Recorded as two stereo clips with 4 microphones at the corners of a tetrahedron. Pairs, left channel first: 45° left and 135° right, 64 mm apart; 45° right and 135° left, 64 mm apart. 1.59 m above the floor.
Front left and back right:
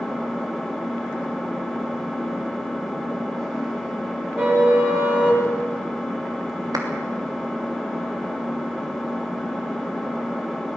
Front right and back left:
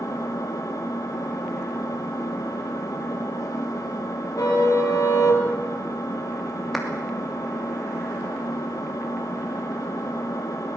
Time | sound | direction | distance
0.0 | an engine running | 45° right | 3 m
4.4 | a car horn | 70° right | 6 m
6.7 | a clap | 135° right | 3 m